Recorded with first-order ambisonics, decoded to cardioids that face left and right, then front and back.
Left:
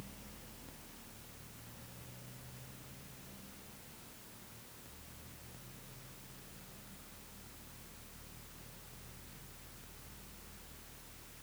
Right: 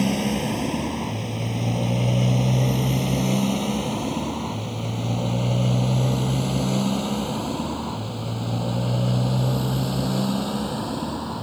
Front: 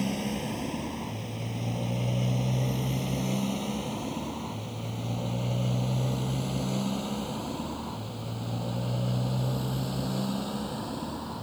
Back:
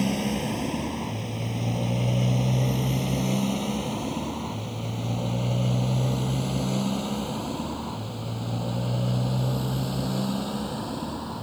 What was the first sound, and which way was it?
A motorcycle, 105° right.